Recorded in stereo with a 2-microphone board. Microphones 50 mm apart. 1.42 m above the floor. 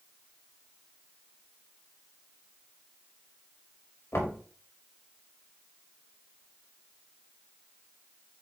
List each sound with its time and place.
4.1 s knocking: 60° left (ahead or behind), 1.5 m